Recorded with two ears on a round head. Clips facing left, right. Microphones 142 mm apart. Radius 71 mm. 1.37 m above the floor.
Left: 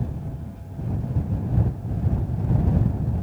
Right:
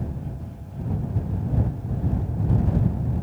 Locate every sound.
Only background noise.